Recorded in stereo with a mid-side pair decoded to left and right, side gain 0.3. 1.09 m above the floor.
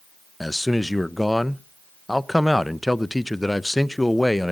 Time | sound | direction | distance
0.4 | a man speaking | 10° left | 0.7 m